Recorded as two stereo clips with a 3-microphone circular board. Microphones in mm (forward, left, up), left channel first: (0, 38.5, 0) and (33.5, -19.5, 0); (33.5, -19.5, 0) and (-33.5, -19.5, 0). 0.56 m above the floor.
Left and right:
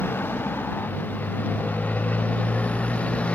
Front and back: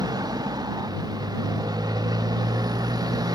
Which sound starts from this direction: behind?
A motorcycle, at 0.0 s.